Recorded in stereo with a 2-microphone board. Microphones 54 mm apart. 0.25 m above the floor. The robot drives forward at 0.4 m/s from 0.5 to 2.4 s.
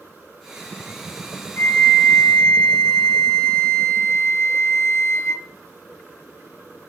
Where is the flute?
50° left (ahead or behind), 1.1 m.